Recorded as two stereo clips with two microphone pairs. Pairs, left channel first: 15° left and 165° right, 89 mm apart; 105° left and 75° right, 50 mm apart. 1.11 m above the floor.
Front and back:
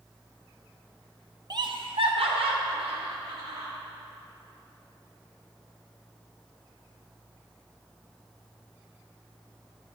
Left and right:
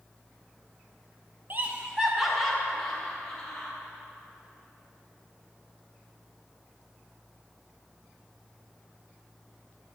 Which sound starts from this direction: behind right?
Laughter, at 1.5 s.